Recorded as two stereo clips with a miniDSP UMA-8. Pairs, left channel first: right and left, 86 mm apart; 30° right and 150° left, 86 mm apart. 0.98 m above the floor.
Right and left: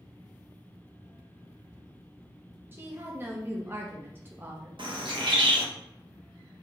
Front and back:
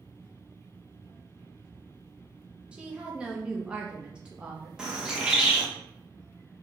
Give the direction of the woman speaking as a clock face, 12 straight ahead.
9 o'clock.